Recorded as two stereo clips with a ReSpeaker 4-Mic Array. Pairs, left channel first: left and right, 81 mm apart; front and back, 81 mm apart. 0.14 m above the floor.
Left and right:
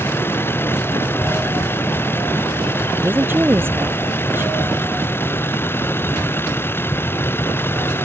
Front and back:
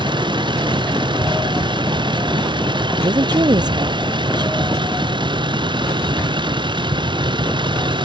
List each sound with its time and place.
0.0 s a vehicle: 155° left
3.0 s a woman speaking: 155° right